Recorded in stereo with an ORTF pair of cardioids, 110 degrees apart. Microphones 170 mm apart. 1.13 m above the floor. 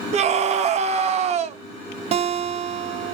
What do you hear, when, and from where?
0.1 s a scream: 45° right, 0.6 m
2.1 s a guitar: 40° right, 0.5 m